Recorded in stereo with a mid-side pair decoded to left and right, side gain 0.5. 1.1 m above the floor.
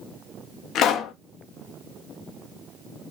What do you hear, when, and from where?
0.8 s a pop: 70° left, 0.7 m